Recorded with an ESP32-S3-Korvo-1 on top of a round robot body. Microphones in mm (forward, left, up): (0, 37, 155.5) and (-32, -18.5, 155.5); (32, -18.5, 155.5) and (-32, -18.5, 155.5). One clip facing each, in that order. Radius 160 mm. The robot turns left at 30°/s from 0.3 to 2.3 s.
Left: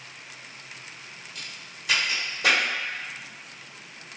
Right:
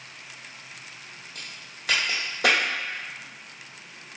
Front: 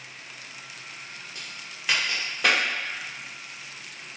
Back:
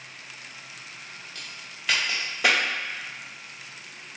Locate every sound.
1.4 s a crack: 65° right, 0.8 m; by 2.6 s 95° right, 0.8 m